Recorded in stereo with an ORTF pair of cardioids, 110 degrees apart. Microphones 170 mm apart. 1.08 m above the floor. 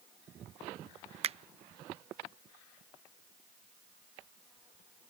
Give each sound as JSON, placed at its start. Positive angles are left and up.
{"t": 1.2, "sound": "a finger snap", "azimuth_deg": -40}